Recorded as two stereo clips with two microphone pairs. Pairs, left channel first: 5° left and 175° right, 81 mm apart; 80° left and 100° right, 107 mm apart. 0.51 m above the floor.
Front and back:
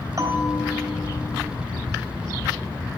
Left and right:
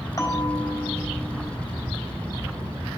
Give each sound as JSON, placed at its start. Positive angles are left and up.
{"t": 0.2, "sound": "a bell", "azimuth_deg": 145, "distance_m": 3.0}